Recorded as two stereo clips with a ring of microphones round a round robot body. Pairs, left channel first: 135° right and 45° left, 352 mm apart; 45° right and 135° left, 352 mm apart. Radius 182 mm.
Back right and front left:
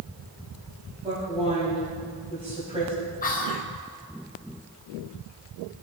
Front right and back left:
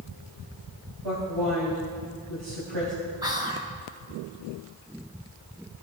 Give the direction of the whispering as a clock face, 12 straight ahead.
5 o'clock.